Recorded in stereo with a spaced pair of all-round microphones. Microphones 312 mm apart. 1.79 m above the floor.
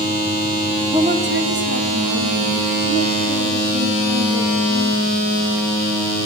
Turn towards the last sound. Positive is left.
turn(degrees=-60)  # may be behind; listen again after turning